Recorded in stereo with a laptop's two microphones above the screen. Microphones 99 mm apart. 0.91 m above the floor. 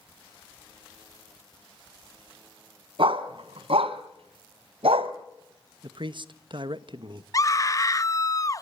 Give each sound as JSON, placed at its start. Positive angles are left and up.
{"t": 3.0, "sound": "a dog barking", "side_deg": -60, "distance_m": 2.5}
{"t": 5.8, "sound": "a man speaking", "side_deg": -55, "distance_m": 1.1}
{"t": 7.3, "sound": "a scream", "side_deg": 35, "distance_m": 1.0}